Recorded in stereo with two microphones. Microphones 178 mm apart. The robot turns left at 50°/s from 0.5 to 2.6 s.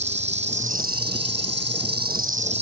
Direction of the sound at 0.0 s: 40° right.